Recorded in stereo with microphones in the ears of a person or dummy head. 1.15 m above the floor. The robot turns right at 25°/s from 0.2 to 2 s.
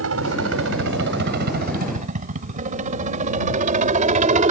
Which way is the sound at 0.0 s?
80° right.